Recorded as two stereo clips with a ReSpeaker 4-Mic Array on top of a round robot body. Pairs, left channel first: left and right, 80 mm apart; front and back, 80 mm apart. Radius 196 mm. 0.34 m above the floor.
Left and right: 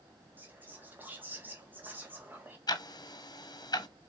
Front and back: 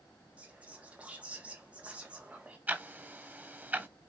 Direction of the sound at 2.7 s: 115° left.